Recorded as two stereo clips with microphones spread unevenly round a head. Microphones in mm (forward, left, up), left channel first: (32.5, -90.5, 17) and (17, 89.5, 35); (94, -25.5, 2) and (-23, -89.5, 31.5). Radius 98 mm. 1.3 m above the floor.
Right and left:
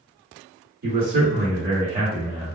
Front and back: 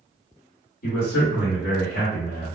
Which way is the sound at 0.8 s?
55° left.